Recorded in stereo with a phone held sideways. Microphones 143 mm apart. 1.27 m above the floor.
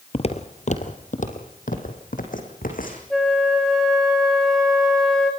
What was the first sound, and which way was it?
Footsteps, 45° left (ahead or behind).